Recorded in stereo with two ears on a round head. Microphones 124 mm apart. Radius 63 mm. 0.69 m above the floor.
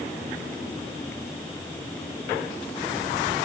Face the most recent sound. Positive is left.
No sound to turn to.